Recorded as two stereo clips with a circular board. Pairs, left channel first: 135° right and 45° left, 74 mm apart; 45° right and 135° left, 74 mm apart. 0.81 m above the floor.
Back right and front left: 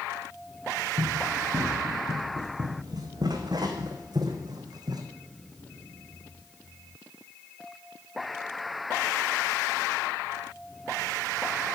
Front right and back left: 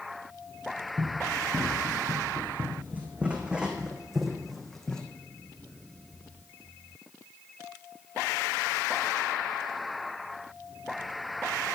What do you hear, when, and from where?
1.0 s running footsteps: 85° left, 3 m; by 5.0 s 35° left, 1.9 m